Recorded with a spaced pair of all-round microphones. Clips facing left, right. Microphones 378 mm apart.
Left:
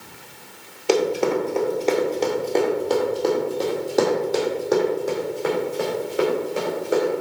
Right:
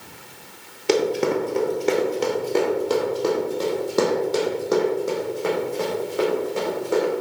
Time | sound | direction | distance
0.9 | running footsteps | 30° right (ahead or behind) | 1.4 m